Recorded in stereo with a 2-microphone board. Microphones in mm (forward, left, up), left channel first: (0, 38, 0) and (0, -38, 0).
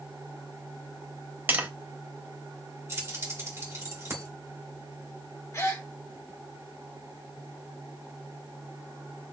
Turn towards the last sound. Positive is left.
turn(degrees=40)  # may be behind; listen again after turning